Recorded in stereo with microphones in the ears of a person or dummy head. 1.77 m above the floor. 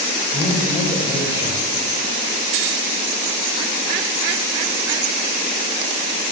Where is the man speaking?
30° left (ahead or behind), 7.5 m.